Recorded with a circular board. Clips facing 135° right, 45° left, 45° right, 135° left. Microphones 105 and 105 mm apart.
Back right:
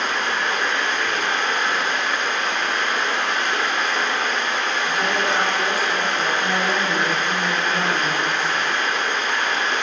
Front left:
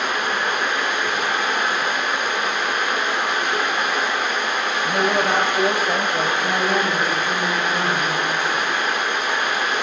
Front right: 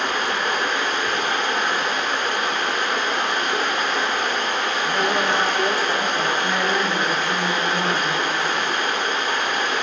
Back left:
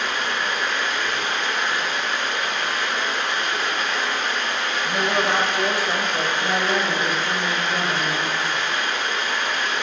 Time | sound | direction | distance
0.0 | running water | 30° right | 1.4 m
4.8 | a man speaking | 60° left | 2.5 m
6.4 | a woman speaking | 120° left | 3 m